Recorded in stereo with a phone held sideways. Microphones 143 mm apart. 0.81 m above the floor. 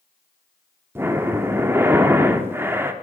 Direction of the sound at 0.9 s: 15° right (ahead or behind).